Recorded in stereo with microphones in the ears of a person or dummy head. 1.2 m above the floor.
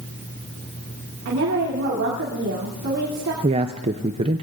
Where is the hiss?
No hiss in this recording.